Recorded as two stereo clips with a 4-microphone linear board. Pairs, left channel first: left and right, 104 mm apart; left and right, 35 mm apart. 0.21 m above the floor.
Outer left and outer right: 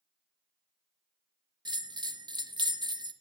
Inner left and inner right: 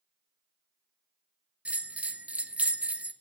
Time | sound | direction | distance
1.6 | a bell | 45° right (ahead or behind) | 0.6 m